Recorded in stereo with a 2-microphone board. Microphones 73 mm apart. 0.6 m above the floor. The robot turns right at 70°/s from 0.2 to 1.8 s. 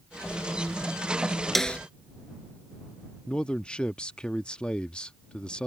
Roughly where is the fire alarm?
No fire alarm in this recording.